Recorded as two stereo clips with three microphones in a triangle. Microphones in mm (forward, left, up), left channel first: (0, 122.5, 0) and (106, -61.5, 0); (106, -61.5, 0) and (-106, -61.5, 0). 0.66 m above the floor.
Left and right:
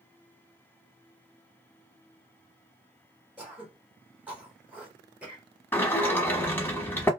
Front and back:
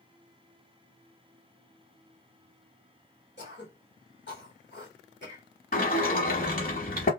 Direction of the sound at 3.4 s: 25° left.